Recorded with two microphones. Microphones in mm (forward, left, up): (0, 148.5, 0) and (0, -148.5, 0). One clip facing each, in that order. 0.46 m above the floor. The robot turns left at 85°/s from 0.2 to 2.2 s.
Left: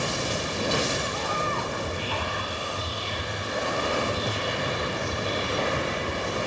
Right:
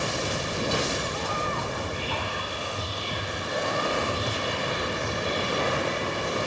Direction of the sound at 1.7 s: 35° right (ahead or behind).